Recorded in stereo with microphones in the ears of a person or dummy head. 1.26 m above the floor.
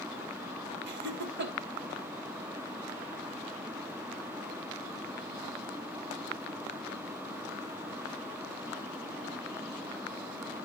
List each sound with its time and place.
0.9 s laughter: 50° right (ahead or behind), 1.3 m